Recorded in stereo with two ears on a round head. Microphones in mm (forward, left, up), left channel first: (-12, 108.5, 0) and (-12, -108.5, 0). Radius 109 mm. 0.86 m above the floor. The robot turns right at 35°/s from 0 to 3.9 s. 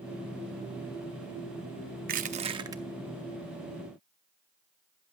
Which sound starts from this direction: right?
Crushing, at 2.1 s.